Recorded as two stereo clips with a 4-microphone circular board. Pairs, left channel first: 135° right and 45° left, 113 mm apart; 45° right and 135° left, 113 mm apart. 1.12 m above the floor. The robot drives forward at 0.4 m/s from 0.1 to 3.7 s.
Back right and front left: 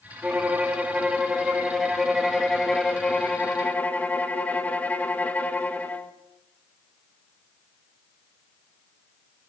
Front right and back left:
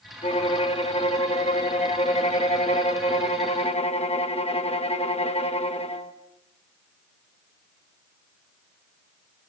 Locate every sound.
0.2 s a violin: 30° right, 2.5 m; by 6.1 s 60° right, 1.6 m